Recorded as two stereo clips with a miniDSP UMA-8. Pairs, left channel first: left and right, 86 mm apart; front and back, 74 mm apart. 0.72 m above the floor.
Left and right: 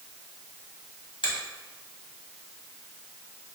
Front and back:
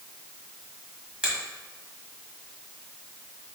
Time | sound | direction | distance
1.2 | a finger snap | 105° left | 1.4 m